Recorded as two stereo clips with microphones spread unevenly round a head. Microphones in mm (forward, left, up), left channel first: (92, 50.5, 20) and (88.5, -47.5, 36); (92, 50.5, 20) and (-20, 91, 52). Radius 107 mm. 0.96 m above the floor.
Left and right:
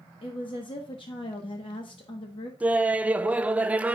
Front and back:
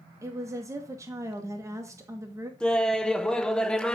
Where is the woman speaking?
90° left, 1.1 m.